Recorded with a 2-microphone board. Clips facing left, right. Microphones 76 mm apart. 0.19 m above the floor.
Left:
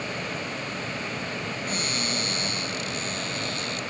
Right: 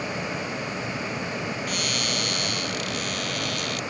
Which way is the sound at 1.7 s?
30° left (ahead or behind).